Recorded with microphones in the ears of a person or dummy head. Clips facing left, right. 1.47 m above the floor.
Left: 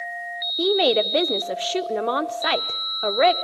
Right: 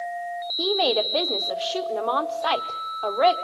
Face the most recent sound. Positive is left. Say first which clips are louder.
# left 4 dB
turn(degrees=30)  # may be behind; listen again after turning